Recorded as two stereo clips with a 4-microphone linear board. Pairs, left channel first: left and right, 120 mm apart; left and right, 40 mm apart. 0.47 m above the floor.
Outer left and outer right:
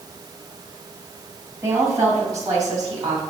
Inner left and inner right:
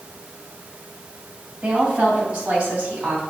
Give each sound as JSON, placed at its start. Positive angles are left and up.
{"t": 1.6, "sound": "a woman speaking", "side_deg": -20, "distance_m": 2.5}